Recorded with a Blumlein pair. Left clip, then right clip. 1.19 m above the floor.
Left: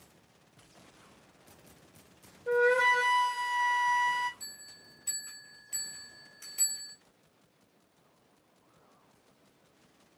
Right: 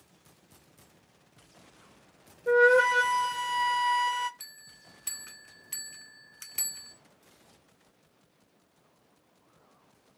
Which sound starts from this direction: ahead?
A flute, at 2.5 s.